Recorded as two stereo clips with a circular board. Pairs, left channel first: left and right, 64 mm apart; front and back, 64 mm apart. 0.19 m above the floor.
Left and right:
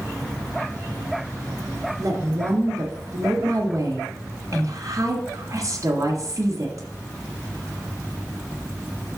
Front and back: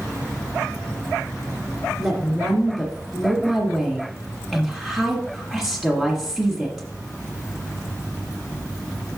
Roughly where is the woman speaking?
Right.